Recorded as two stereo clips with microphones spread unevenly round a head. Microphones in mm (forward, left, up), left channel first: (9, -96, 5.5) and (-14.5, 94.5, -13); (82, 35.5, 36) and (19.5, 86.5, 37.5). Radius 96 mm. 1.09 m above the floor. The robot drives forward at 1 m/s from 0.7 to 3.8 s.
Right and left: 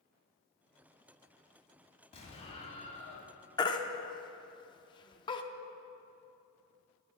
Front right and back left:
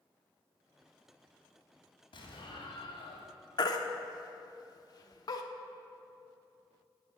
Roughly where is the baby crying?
Ahead right.